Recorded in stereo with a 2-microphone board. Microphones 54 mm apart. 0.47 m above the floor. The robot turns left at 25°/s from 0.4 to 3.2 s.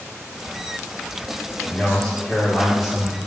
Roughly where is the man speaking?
Centre.